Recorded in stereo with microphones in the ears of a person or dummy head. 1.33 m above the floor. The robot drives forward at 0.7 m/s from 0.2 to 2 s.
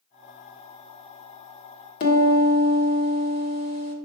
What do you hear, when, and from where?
2.0 s a piano: 55° left (ahead or behind), 1.3 m